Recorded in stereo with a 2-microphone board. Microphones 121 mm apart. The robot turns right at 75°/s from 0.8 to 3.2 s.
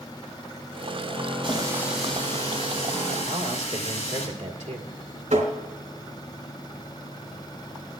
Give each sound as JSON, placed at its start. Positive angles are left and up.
{"t": 1.4, "sound": "a running tap", "azimuth_deg": -45, "distance_m": 7.0}
{"t": 3.3, "sound": "a man speaking", "side_deg": -70, "distance_m": 1.7}
{"t": 5.3, "sound": "tapping", "side_deg": -80, "distance_m": 3.5}